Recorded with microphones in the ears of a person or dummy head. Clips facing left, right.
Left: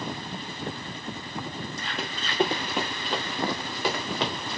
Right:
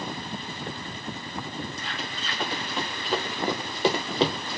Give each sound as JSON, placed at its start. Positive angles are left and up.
{"t": 2.0, "sound": "running footsteps", "side_deg": 30, "distance_m": 1.4}